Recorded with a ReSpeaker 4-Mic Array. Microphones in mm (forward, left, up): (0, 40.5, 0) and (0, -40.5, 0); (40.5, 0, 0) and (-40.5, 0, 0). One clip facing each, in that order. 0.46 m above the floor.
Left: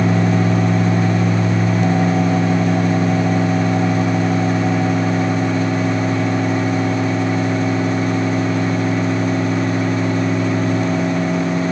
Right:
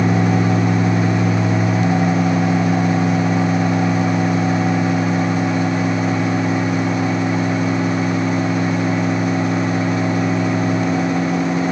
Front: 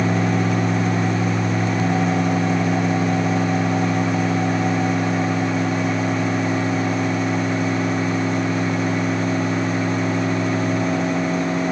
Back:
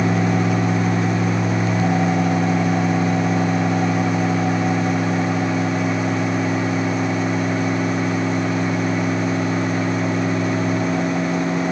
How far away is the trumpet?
No trumpet in this recording.